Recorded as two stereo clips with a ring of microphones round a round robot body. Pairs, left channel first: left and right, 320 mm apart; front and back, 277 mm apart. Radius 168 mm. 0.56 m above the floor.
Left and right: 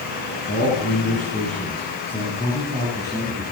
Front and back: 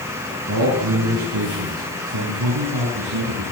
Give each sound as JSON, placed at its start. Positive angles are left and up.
{"t": 0.5, "sound": "a man speaking", "azimuth_deg": 155, "distance_m": 6.0}